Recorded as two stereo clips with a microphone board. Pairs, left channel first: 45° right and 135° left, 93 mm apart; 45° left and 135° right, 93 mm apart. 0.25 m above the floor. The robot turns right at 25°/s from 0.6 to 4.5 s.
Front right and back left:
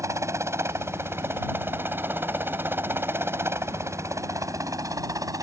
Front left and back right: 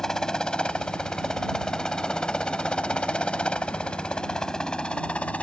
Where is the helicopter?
125° left; by 5.4 s 115° left.